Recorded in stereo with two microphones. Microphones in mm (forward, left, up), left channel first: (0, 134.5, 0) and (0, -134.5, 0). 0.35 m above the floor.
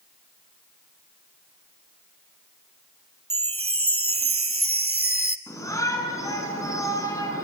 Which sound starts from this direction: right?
A chime, at 3.3 s.